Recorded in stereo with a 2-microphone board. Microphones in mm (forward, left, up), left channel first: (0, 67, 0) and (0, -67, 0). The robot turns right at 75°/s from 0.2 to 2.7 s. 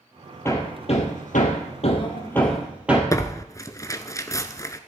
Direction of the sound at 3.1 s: 25° left (ahead or behind).